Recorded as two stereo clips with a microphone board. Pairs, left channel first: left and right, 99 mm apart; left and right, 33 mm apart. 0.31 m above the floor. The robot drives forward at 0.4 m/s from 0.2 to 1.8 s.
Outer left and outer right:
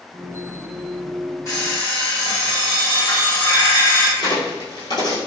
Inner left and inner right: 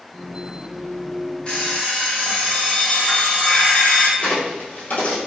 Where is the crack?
40° left (ahead or behind), 1.6 m.